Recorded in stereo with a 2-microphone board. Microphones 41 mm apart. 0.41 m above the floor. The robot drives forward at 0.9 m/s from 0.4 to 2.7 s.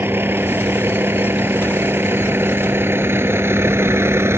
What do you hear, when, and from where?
0.0 s a vehicle: 60° right (ahead or behind); by 4.4 s 80° right